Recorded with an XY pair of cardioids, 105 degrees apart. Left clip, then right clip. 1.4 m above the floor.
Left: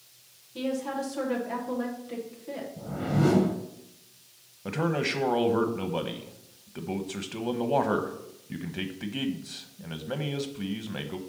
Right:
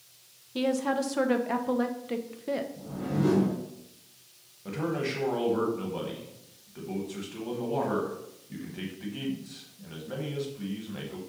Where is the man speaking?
50° left, 1.1 m.